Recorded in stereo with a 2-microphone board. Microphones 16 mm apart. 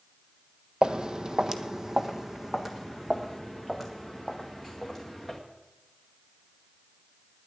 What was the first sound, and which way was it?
Footsteps, 70° right (ahead or behind).